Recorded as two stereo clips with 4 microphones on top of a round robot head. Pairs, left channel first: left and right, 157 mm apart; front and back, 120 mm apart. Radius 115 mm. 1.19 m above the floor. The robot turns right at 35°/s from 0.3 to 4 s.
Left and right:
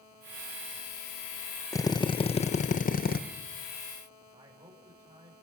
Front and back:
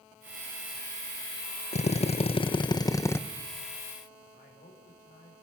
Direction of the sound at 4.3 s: 40° right.